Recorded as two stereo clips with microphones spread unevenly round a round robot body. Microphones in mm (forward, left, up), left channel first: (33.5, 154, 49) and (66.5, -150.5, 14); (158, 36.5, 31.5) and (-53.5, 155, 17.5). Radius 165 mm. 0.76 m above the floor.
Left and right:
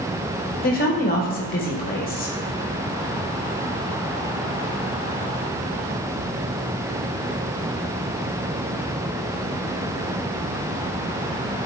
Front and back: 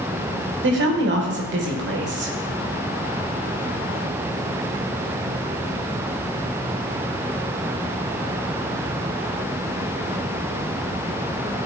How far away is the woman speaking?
About 1.5 m.